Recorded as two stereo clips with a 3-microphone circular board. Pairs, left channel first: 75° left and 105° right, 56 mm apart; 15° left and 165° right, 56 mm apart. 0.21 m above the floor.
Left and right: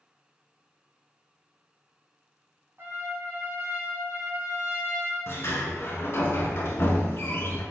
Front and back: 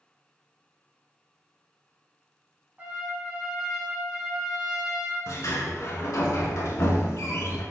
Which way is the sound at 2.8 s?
115° right.